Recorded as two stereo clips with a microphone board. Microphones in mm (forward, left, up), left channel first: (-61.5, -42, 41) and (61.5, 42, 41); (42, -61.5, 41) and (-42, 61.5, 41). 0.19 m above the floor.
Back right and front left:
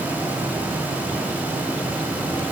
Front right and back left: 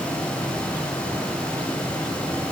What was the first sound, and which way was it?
Only background noise.